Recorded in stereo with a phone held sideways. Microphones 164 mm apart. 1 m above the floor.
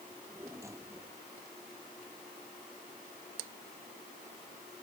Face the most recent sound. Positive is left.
turn(degrees=-15)  # may be behind; listen again after turning